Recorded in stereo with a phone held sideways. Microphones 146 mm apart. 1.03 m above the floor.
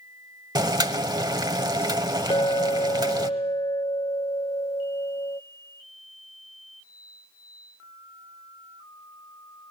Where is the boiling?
30° right (ahead or behind), 0.9 m.